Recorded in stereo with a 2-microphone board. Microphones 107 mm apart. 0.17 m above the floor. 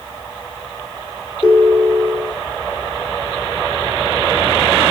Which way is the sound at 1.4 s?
5° right (ahead or behind).